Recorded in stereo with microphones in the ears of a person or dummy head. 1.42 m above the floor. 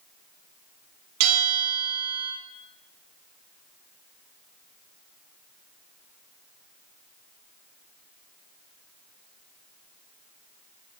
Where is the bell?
75° right (ahead or behind), 6 m.